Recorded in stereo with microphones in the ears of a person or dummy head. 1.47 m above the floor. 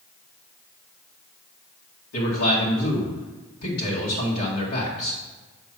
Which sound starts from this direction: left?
A man speaking, at 2.1 s.